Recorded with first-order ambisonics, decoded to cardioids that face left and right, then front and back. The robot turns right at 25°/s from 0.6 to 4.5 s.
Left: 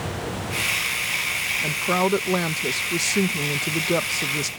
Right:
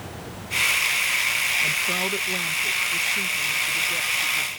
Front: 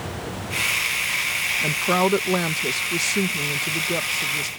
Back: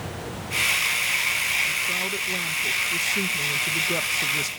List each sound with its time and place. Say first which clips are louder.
1.6 s a woman speaking: left 1 dB, front 4 dB; 25° left; by 4.5 s 95° left